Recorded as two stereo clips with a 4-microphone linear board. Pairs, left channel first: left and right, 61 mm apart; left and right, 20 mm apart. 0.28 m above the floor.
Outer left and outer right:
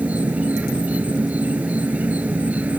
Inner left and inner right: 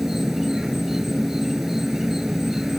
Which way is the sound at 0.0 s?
25° right (ahead or behind).